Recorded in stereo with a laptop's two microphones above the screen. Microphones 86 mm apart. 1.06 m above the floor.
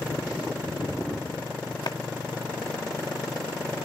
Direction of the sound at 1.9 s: 55° left (ahead or behind).